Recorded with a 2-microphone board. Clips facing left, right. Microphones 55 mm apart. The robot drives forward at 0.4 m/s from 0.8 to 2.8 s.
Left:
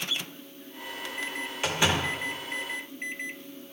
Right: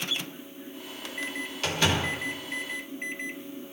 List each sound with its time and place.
1.6 s a door slam: 20° left (ahead or behind), 0.8 m